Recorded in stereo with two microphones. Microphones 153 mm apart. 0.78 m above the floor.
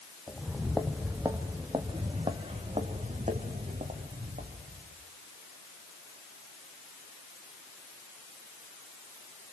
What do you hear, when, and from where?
0.3 s footsteps: 10° left (ahead or behind), 1.8 m; by 4.9 s 60° right (ahead or behind), 4 m